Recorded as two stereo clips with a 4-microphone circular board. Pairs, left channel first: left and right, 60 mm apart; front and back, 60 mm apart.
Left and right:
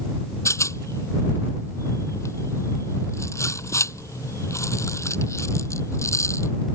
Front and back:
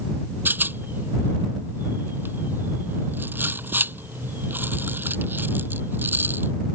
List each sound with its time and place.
0.5 s a rattle: 125° left